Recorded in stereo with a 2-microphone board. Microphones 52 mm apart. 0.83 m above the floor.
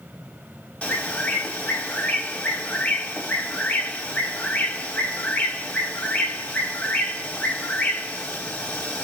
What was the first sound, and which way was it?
A bird, 25° left (ahead or behind).